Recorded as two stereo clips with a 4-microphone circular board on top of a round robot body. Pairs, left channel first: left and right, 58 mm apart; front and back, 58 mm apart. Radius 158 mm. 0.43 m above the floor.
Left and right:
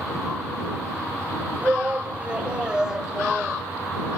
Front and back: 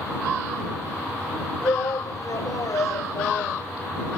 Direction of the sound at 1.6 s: 25° right.